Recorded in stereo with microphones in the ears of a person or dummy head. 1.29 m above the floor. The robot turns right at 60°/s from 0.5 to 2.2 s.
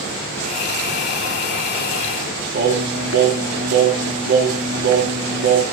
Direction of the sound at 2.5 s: 60° right (ahead or behind).